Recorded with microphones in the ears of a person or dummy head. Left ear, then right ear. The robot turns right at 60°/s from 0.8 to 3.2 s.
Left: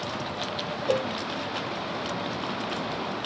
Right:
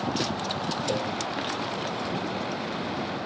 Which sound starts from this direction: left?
A cowbell, at 0.9 s.